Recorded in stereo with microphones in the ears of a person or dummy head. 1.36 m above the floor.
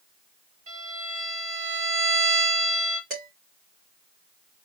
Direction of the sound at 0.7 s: 50° right (ahead or behind).